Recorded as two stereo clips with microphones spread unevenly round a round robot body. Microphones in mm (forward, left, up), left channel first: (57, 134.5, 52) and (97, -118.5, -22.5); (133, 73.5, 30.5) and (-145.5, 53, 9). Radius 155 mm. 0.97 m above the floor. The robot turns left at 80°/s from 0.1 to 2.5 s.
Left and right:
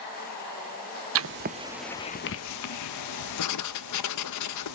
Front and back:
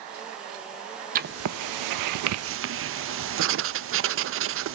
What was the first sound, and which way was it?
Writing, 110° right.